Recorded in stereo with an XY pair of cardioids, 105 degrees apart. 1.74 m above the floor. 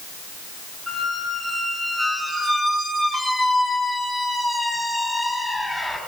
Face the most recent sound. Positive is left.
turn(degrees=25)